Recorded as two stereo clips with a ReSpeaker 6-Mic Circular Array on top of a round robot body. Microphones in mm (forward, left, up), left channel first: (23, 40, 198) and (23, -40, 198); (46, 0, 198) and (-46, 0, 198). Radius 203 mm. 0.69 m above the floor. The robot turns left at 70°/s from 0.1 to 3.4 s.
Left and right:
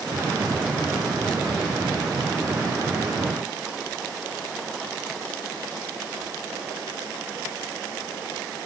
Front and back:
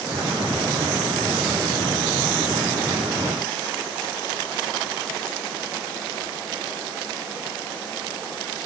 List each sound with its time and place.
Only background noise.